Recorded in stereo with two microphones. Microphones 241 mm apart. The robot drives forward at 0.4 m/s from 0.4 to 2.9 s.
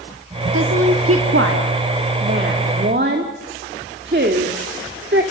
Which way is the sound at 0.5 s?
75° right (ahead or behind).